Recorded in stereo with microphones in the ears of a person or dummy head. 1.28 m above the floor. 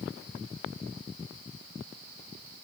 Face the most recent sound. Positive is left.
No sound to turn to.